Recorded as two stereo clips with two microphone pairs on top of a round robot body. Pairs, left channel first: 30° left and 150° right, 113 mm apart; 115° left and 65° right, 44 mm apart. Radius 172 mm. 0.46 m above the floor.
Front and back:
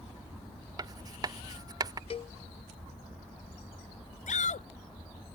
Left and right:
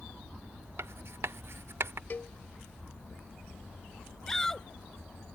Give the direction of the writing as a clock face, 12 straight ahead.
3 o'clock.